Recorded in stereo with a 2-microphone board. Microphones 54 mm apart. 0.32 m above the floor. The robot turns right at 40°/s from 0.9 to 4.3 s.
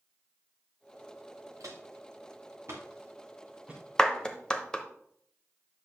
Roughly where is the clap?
Centre.